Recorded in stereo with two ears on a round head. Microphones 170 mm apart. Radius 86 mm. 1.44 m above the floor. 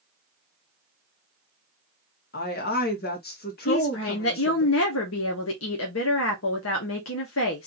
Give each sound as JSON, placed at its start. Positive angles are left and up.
{"t": 2.3, "sound": "a woman speaking", "side_deg": 55, "distance_m": 1.8}
{"t": 3.6, "sound": "a woman speaking", "side_deg": 80, "distance_m": 1.5}